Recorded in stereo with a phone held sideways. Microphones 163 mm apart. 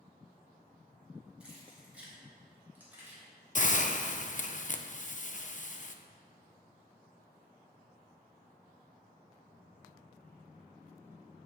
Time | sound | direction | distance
1.4 | keys jangling | 5° right (ahead or behind) | 3.5 m
3.5 | a hiss | 50° left (ahead or behind) | 0.6 m